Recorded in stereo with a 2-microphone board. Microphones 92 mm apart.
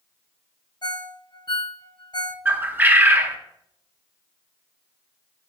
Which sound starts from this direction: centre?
A bird, at 2.5 s.